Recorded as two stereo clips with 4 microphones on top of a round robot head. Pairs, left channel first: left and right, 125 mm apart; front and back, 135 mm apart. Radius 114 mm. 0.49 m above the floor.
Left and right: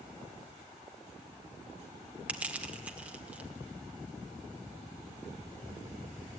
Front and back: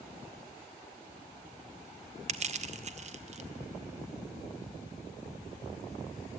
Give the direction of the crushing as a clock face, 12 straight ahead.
6 o'clock.